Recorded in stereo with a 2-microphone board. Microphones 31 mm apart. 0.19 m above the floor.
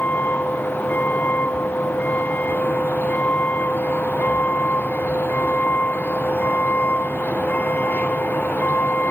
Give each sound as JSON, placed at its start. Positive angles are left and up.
{"t": 0.0, "sound": "a vehicle", "side_deg": 65}